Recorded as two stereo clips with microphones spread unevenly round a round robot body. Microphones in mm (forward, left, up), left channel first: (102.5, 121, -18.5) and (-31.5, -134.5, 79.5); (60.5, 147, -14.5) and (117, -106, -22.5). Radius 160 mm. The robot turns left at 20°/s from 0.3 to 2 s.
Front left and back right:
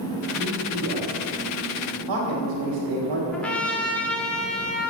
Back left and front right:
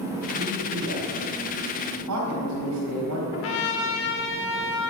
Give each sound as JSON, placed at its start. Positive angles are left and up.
{"t": 0.4, "sound": "a man speaking", "azimuth_deg": -80, "distance_m": 4.0}
{"t": 3.3, "sound": "a trumpet", "azimuth_deg": 130, "distance_m": 1.6}